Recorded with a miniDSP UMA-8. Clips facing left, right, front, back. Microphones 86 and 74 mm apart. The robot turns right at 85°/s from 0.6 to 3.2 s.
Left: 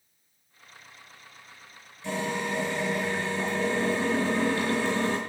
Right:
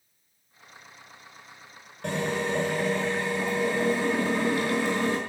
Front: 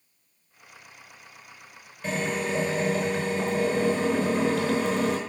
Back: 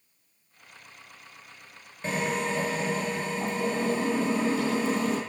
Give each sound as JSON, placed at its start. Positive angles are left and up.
{"t": 2.0, "sound": "a drill", "azimuth_deg": -115, "distance_m": 6.0}